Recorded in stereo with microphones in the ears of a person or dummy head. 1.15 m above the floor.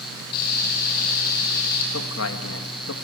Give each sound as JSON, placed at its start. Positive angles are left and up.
{"t": 0.3, "sound": "frying", "side_deg": 50, "distance_m": 8.5}
{"t": 1.9, "sound": "a man speaking", "side_deg": 75, "distance_m": 1.5}